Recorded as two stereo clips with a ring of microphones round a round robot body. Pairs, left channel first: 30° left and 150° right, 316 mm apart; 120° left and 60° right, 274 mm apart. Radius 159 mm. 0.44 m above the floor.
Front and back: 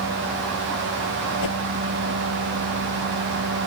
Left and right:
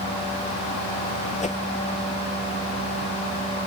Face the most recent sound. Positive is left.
turn(degrees=55)